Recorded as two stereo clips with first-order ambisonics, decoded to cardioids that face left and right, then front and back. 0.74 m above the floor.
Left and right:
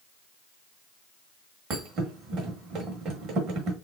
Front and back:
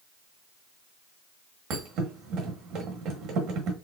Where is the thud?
140° right, 1.1 m.